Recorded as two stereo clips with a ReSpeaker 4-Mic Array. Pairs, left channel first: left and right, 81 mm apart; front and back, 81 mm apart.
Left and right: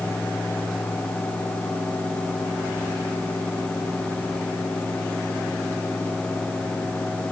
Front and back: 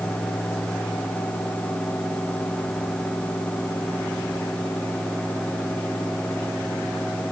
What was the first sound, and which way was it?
Only background noise.